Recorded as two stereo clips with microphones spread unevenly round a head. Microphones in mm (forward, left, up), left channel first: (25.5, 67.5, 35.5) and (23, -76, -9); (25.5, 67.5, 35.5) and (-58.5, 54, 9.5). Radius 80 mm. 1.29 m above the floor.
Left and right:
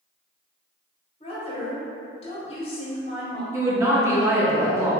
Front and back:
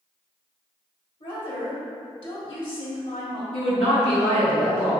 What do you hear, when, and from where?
1.2 s a woman speaking: 35° left, 1.3 m
3.5 s a woman speaking: 20° right, 1.0 m